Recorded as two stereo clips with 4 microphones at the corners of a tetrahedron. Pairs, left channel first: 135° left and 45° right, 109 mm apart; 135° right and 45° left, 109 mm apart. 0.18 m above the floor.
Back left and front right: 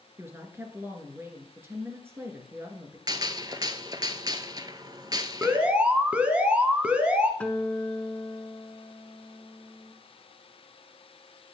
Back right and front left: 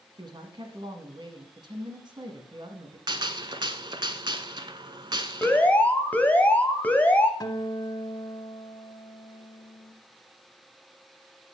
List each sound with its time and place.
0.2 s a woman speaking: 15° left, 1.6 m
3.1 s a gunshot: 5° left, 0.6 m
5.4 s an alarm: 95° right, 0.9 m
7.4 s a guitar: 155° right, 0.9 m